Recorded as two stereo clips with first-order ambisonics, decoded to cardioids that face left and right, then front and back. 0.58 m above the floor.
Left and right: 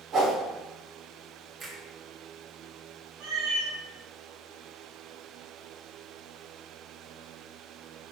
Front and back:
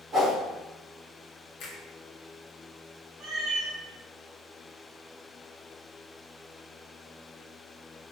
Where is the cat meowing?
130° right, 1.0 m.